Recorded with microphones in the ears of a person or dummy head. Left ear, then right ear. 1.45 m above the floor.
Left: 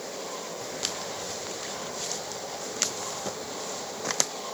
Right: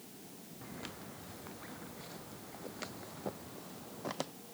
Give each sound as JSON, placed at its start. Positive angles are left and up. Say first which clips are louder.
{"t": 0.6, "sound": "footsteps", "louder": "left 13 dB", "side_deg": 80}